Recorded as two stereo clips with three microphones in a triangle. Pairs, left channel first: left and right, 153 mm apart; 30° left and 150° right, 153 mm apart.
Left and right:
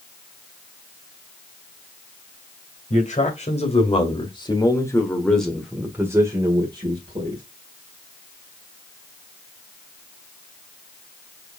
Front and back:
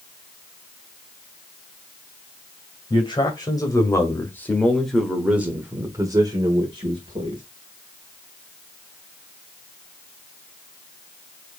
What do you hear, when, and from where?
2.9 s a man speaking: 80° left, 2 m; by 7.4 s 120° right, 1.8 m